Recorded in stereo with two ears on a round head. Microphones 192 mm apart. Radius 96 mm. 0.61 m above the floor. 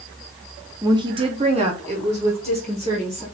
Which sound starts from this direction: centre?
A woman speaking, at 0.8 s.